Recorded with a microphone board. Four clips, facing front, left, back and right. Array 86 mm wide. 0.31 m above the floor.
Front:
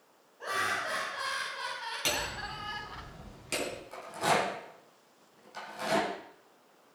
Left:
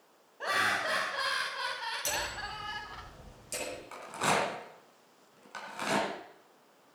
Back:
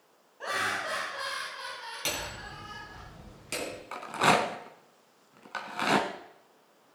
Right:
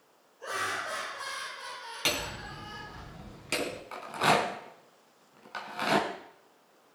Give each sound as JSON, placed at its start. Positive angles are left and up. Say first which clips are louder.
{"t": 0.4, "sound": "laughter", "louder": "left 3 dB, back 1 dB", "azimuth_deg": 110, "distance_m": 1.8}
{"t": 2.0, "sound": "hammering", "louder": "right 1 dB, front 2 dB", "azimuth_deg": -90, "distance_m": 2.5}
{"t": 3.9, "sound": "a rattle", "louder": "right 4 dB, back 5 dB", "azimuth_deg": -160, "distance_m": 1.8}